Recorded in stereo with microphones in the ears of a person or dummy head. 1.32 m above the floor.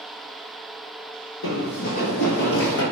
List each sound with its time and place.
1.4 s running footsteps: 55° left (ahead or behind), 2.5 m; by 2.8 s 70° left (ahead or behind), 3.5 m